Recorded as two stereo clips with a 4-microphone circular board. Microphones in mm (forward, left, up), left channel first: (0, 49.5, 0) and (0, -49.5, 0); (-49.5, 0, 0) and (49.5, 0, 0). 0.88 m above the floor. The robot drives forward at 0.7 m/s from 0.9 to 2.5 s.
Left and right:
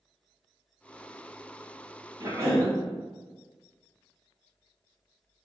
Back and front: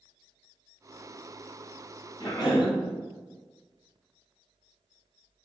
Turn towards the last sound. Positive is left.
turn(degrees=-145)